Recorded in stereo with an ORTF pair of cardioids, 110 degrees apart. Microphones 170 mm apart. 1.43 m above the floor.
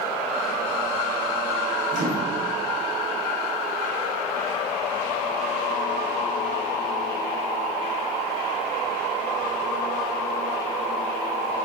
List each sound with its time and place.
1.9 s a microwave: 50° right, 0.7 m